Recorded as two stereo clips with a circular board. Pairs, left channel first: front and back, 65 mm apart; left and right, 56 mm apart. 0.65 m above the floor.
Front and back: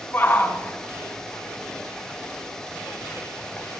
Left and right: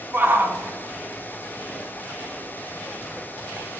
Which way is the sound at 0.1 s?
50° right.